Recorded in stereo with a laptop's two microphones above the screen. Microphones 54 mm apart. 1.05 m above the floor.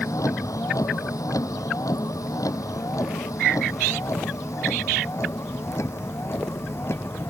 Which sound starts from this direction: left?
A vehicle, at 0.0 s.